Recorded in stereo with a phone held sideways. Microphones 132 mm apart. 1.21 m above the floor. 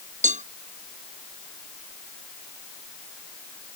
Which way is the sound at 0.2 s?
65° right (ahead or behind).